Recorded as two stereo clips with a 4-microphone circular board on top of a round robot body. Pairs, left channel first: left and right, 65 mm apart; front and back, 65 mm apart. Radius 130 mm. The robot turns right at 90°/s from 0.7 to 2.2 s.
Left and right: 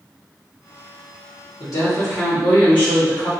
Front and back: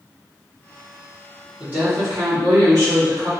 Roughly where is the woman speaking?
Left.